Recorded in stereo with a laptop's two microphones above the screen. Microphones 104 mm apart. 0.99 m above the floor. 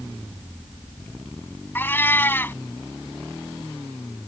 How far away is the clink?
I don't hear a clink.